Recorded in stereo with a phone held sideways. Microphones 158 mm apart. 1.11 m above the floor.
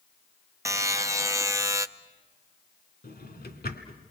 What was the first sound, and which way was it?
A buzzer, 20° right (ahead or behind).